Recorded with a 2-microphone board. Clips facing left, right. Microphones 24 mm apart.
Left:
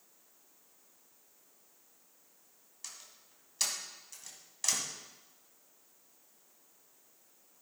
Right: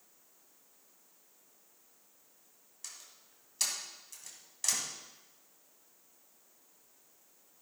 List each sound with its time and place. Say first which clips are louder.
2.8 s a door slam: even; 10° left (ahead or behind), 2.5 m